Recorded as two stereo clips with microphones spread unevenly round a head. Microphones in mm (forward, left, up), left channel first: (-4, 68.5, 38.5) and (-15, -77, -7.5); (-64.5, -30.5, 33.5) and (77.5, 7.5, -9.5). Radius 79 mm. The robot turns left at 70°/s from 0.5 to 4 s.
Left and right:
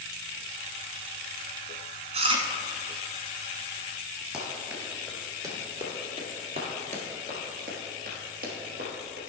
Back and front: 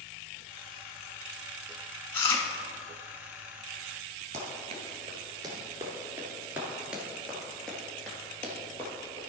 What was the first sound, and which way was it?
Chewing, 140° right.